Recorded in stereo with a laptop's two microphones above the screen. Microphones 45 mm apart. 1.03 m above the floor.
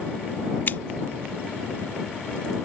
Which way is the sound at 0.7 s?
50° left (ahead or behind).